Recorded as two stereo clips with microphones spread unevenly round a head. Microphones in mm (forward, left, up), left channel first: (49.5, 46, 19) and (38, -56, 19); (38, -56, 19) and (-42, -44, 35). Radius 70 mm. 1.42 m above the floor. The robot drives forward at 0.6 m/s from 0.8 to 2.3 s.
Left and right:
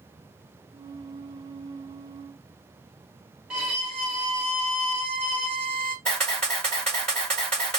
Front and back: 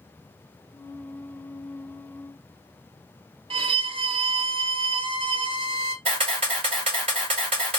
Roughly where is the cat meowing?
No cat meowing in this recording.